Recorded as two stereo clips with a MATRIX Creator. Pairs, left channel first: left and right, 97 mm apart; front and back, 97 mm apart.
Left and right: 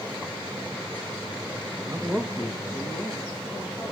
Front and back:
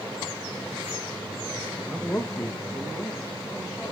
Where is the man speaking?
75° right, 0.5 m; by 3.9 s 60° left, 1.8 m.